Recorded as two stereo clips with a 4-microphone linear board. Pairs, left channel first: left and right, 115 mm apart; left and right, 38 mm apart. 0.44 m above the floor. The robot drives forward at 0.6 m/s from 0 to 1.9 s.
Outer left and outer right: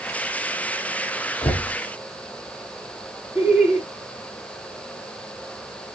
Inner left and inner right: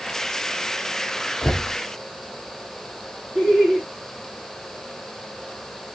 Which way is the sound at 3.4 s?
30° left (ahead or behind).